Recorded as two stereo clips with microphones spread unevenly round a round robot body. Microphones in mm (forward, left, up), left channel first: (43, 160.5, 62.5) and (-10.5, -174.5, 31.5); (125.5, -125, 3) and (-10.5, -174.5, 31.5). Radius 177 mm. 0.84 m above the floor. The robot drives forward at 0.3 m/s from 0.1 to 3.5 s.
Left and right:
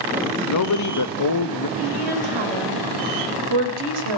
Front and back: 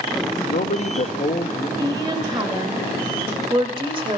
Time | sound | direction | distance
0.5 | a man speaking | 40° left | 0.8 m
1.8 | a woman speaking | 95° right | 4.5 m